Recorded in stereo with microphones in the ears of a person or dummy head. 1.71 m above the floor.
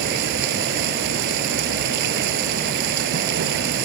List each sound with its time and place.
0.0 s running water: 65° right (ahead or behind)